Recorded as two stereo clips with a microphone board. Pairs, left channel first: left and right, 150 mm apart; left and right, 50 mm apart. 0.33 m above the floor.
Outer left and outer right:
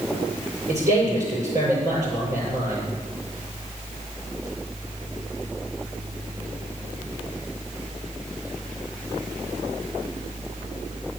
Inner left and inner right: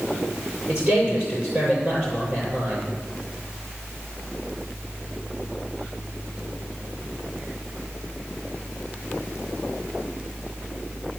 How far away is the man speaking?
About 8 m.